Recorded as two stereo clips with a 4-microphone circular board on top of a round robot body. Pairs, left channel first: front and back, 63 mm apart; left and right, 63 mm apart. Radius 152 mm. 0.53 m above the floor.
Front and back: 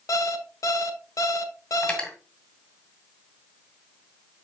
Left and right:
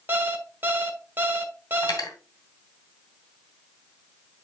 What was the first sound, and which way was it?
An alarm clock, 35° right.